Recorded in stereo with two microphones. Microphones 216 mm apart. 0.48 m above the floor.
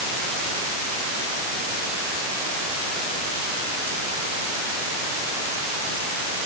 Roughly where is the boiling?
I don't hear boiling.